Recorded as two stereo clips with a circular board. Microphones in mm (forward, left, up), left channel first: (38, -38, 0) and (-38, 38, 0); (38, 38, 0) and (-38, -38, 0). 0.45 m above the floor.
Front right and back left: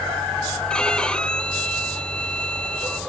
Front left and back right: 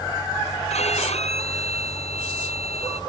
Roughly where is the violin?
Ahead left.